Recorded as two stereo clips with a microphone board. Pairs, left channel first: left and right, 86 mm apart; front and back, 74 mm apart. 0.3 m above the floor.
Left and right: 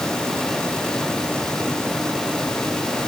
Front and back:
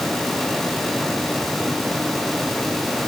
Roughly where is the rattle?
I don't hear a rattle.